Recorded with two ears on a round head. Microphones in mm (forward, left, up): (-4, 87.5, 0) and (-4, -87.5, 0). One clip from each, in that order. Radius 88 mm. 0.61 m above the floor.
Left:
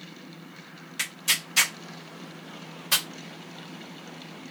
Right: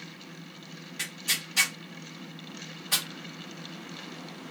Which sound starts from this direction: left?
Tearing paper, at 1.0 s.